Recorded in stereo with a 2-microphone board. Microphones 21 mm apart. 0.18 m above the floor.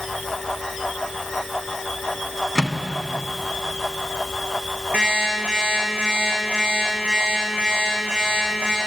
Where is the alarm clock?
70° right (ahead or behind), 6.5 m.